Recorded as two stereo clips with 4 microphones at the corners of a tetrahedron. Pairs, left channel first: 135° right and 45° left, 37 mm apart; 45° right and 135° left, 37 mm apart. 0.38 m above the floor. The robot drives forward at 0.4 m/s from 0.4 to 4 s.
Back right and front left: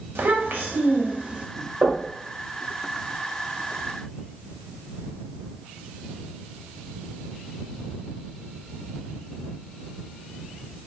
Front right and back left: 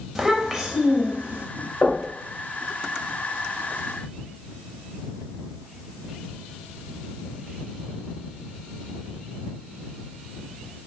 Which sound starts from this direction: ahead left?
A child speaking, at 0.1 s.